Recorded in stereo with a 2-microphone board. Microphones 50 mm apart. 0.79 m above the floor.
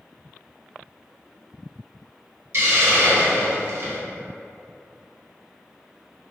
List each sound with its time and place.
2.5 s a hiss: 60° right (ahead or behind), 1.4 m